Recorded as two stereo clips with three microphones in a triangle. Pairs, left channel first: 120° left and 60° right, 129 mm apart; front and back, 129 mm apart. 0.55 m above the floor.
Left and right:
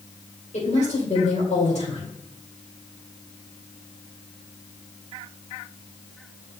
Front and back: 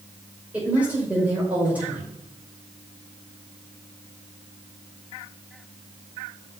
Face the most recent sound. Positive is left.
turn(degrees=100)